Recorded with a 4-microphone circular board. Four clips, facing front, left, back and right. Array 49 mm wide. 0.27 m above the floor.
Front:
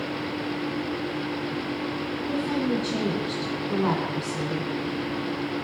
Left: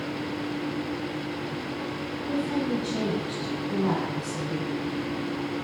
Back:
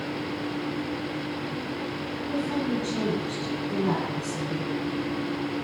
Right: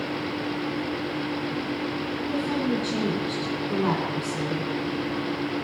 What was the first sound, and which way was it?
A woman speaking, 30° right.